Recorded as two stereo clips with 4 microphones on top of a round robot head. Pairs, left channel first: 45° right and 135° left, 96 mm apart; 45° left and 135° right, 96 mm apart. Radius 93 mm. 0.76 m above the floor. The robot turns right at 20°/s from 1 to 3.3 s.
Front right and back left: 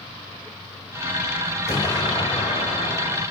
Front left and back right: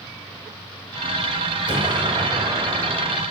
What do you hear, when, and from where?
1.7 s an explosion: 100° right, 3 m; by 3.2 s 70° right, 3 m